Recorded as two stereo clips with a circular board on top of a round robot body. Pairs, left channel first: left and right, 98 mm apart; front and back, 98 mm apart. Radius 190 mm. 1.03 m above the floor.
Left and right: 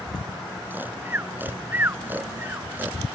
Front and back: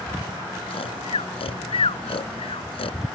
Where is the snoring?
20° right.